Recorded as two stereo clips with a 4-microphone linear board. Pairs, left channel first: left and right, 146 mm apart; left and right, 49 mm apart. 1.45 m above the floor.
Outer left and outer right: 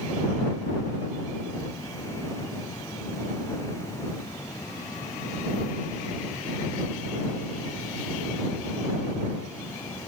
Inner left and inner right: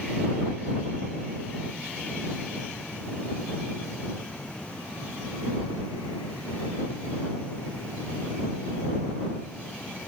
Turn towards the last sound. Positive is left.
No sound to turn to.